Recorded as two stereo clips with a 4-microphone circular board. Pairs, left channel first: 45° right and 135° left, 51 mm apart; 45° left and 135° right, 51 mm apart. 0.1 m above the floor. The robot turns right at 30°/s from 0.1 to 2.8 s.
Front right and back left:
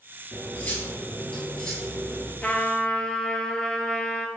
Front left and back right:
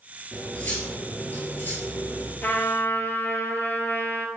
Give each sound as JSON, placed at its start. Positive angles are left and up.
{"t": 0.3, "sound": "cutlery clinking", "azimuth_deg": -15, "distance_m": 1.2}
{"t": 2.4, "sound": "a trumpet", "azimuth_deg": 15, "distance_m": 0.6}